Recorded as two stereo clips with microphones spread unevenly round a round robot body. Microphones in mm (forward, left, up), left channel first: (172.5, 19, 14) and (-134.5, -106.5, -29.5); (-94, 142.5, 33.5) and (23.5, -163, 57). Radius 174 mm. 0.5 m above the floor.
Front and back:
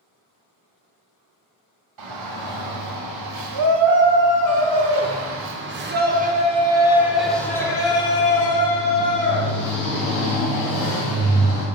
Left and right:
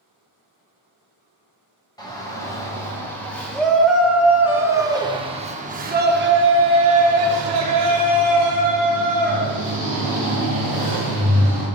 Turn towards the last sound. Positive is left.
turn(degrees=-25)